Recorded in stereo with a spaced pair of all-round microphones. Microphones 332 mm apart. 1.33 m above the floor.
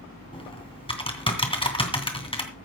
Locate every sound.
0.3 s typing on a keyboard: 15° left (ahead or behind), 2.5 m